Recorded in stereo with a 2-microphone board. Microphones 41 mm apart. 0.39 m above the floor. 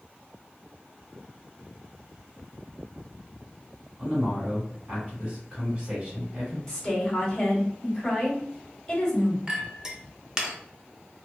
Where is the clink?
15° right (ahead or behind), 0.6 m.